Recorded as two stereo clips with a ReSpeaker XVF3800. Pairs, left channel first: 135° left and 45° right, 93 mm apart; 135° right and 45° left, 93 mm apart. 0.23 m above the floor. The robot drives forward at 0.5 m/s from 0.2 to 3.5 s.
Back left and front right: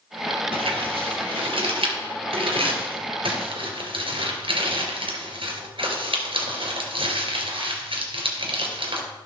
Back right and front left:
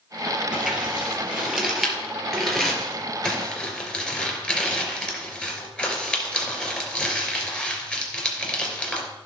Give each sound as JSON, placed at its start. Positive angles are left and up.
{"t": 0.5, "sound": "crumpling", "azimuth_deg": -40, "distance_m": 4.0}